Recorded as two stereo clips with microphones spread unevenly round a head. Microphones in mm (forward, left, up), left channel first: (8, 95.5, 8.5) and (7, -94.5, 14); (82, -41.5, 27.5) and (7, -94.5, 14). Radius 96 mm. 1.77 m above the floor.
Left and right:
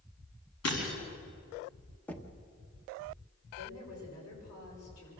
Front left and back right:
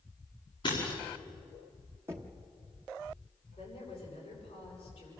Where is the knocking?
165° left, 1.0 m.